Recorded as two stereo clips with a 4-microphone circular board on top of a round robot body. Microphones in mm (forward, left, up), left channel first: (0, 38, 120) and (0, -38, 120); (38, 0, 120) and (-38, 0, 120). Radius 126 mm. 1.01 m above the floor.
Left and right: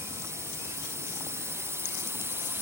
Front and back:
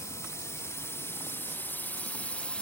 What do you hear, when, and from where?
0.0 s a drone: 45° right; by 2.6 s 65° right